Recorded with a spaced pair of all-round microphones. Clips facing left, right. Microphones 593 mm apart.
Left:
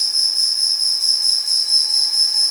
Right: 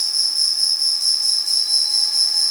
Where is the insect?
10° right (ahead or behind), 3 m.